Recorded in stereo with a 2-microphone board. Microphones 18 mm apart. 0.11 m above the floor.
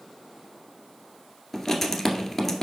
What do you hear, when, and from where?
1.5 s writing: 15° left (ahead or behind), 1.3 m